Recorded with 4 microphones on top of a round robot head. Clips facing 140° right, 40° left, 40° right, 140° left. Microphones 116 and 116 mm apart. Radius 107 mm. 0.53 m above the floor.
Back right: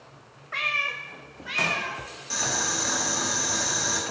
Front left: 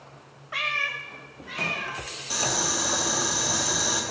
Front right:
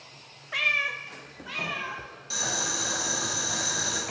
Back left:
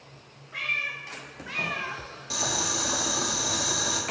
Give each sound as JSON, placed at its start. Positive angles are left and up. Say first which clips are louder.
{"t": 0.5, "sound": "a cat meowing", "louder": "even, front right 4 dB", "azimuth_deg": -40, "distance_m": 0.6}
{"t": 2.3, "sound": "boiling", "louder": "front left 2 dB, back left 2 dB", "azimuth_deg": 110, "distance_m": 2.0}